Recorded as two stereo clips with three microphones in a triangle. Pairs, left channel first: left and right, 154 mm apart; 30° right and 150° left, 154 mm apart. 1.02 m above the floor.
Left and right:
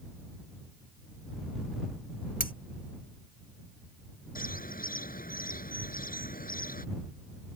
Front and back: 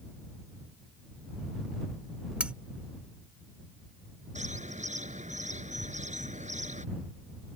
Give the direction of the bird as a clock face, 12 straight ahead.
8 o'clock.